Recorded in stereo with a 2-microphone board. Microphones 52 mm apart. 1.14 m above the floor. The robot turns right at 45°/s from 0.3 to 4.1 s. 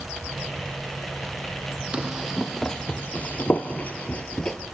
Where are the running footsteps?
20° right (ahead or behind), 2 m; by 4.6 s 10° left (ahead or behind), 1.1 m.